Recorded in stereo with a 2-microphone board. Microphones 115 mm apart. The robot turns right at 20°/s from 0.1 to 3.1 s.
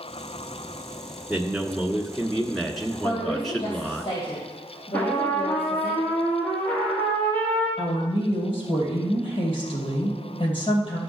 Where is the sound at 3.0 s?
45° left (ahead or behind), 3 m.